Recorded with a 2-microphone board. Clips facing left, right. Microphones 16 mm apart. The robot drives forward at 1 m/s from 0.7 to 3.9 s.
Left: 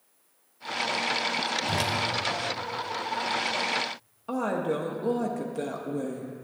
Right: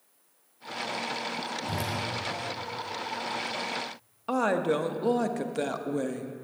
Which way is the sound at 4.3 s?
30° right (ahead or behind).